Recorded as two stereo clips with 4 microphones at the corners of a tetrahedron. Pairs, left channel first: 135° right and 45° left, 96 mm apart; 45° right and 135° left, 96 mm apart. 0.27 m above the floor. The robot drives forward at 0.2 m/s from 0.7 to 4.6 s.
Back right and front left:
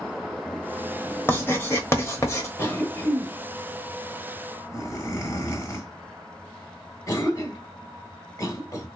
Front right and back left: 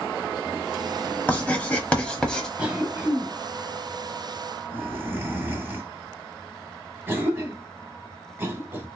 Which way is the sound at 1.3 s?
95° right.